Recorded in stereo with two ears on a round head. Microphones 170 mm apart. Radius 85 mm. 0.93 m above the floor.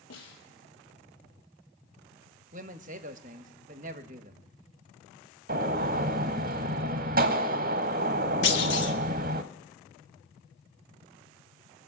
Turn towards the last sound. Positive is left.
turn(degrees=60)  # may be behind; listen again after turning